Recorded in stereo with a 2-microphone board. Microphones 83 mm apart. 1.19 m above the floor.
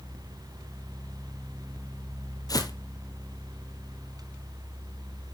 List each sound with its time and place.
2.5 s footsteps: 50° left (ahead or behind), 2.5 m